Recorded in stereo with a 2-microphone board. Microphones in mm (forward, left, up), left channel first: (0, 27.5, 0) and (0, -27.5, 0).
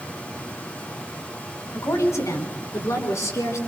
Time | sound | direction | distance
1.7 | a woman speaking | 75° left (ahead or behind) | 3.5 m